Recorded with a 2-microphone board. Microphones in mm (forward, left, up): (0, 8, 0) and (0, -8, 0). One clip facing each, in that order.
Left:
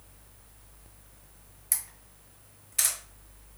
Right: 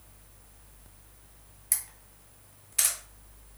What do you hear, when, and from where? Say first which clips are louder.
1.7 s a camera shutter: even; 10° right (ahead or behind), 1.8 m